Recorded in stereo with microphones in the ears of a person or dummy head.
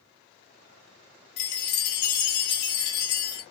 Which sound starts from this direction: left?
A chime, at 1.4 s.